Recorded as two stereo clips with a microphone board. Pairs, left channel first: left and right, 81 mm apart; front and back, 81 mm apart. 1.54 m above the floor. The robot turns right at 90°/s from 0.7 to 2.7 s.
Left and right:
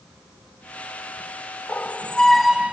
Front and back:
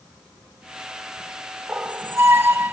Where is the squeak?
120° left; by 2.7 s 150° right.